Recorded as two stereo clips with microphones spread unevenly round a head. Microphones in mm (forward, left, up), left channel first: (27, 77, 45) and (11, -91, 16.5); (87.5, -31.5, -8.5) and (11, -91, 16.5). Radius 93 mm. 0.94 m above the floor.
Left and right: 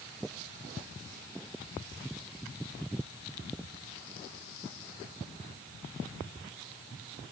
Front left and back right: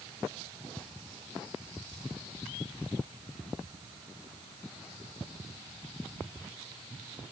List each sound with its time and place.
Only background noise.